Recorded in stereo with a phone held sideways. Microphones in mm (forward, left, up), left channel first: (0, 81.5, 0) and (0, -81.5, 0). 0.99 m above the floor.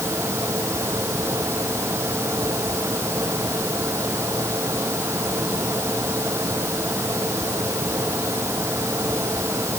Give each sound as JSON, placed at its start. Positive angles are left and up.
{"t": 0.0, "sound": "a fan", "side_deg": -15}